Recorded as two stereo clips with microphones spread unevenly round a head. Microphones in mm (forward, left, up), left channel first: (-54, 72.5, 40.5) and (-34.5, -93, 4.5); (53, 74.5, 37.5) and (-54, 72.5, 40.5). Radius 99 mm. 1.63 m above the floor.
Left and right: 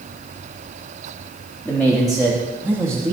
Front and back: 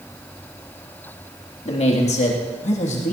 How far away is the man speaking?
About 2.5 m.